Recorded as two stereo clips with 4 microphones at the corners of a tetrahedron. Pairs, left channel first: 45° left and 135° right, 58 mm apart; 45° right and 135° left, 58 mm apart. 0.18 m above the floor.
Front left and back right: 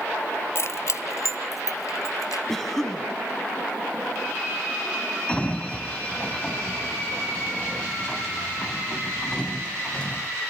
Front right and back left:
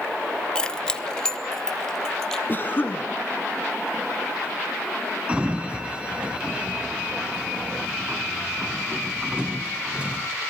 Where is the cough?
35° right, 1.9 m.